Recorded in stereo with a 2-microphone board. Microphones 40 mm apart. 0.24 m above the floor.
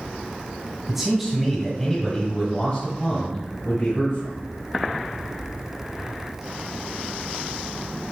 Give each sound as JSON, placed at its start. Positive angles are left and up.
{"t": 0.9, "sound": "a man speaking", "side_deg": -10, "distance_m": 1.4}